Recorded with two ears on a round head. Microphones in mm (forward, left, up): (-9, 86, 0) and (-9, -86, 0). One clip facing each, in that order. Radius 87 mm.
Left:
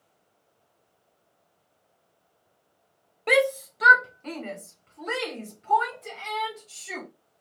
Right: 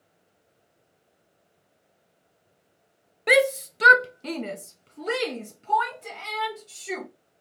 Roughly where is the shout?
Centre.